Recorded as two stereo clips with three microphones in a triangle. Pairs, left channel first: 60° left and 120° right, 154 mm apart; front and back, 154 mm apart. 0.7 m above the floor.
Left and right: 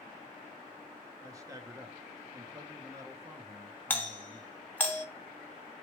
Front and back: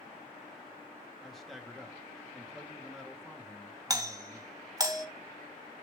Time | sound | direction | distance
1.2 | a man speaking | 85° right | 1.0 m
3.9 | a doorbell | 130° left | 1.1 m